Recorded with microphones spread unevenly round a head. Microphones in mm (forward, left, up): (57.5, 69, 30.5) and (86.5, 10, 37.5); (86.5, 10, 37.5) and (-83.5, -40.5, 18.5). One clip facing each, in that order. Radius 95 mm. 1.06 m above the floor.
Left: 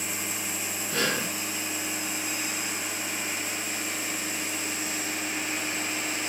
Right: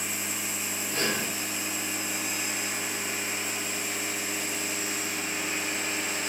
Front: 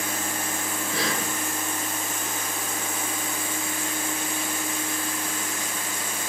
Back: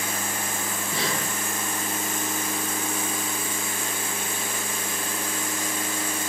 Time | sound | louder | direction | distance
0.9 | breathing | left 2 dB, front 1 dB | 125° left | 3 m